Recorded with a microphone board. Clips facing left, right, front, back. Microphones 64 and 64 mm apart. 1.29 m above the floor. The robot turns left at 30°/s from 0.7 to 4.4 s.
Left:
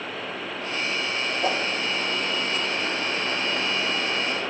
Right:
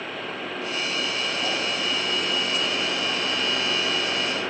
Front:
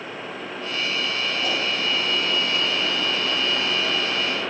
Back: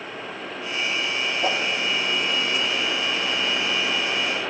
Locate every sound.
1.4 s a whoosh: 130° left, 1.7 m; by 1.6 s 125° left, 1.7 m